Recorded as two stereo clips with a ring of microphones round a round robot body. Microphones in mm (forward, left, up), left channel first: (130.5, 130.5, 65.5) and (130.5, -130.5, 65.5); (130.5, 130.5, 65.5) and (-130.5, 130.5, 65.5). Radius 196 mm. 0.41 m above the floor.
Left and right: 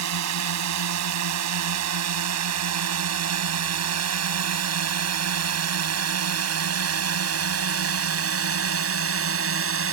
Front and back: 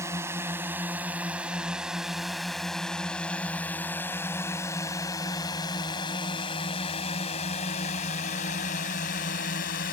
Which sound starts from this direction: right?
A drone, at 0.0 s.